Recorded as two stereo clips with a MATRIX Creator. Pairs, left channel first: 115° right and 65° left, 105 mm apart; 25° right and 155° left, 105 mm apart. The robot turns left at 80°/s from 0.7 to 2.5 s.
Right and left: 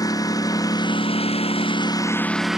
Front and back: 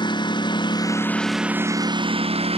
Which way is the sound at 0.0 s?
60° right.